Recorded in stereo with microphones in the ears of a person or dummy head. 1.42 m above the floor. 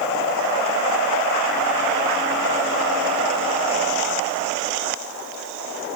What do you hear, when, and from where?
Only background noise.